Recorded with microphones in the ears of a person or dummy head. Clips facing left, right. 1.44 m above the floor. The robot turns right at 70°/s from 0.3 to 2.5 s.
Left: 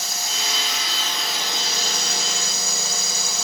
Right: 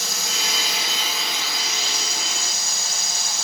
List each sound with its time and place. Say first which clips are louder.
0.0 s a drone: right 1 dB; 65° right; by 3.5 s 90° left